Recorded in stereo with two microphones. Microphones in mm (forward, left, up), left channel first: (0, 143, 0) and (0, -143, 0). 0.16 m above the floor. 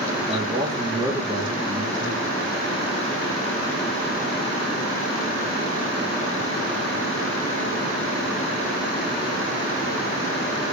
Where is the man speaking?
15° right (ahead or behind), 3 m; by 2.4 s 15° left (ahead or behind), 4 m.